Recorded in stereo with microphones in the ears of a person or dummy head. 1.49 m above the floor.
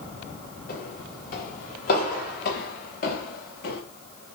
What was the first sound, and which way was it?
Footsteps, 50° left (ahead or behind).